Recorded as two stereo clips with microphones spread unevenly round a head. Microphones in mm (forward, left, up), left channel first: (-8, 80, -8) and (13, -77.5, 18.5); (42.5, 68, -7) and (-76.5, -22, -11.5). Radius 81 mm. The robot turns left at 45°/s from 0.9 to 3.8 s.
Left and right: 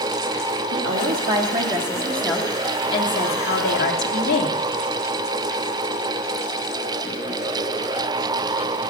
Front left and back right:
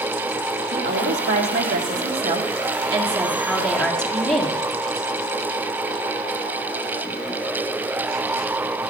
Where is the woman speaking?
105° right, 1.8 m; by 4.6 s 120° left, 1.8 m.